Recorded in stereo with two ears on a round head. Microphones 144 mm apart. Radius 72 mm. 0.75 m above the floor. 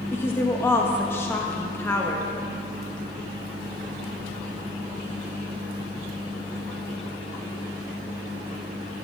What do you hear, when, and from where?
0.1 s a woman speaking: 15° left (ahead or behind), 0.9 m